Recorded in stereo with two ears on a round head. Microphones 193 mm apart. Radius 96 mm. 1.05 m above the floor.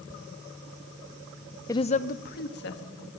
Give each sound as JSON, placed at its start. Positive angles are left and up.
{"t": 1.7, "sound": "a woman speaking", "side_deg": 15, "distance_m": 0.6}